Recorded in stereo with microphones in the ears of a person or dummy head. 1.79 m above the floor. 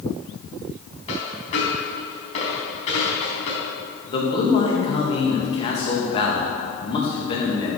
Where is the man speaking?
35° left (ahead or behind), 2.5 m.